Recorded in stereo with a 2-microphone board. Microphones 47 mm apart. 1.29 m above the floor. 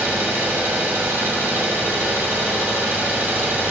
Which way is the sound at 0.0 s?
60° right (ahead or behind).